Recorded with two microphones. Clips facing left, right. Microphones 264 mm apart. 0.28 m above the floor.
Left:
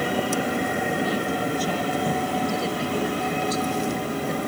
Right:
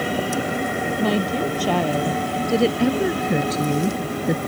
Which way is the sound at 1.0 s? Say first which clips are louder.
Right 4 dB; 75° right (ahead or behind).